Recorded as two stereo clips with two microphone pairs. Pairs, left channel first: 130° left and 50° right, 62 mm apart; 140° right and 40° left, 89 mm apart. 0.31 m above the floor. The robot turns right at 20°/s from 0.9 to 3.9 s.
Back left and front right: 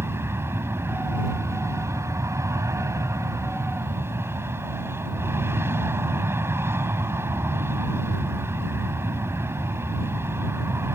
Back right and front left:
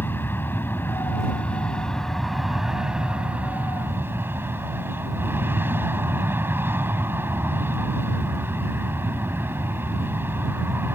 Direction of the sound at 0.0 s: 80° right.